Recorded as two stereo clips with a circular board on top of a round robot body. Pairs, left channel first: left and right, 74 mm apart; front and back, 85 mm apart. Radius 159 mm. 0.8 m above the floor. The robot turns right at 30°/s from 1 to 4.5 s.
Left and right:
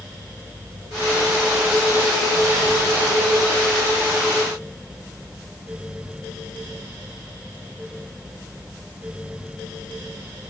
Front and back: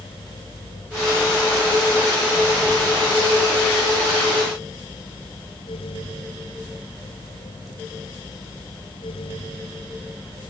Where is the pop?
I don't hear a pop.